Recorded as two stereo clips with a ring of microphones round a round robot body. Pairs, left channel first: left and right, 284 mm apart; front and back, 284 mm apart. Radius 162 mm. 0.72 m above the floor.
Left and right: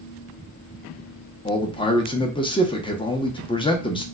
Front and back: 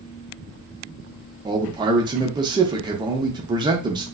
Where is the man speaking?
130° left, 0.6 m.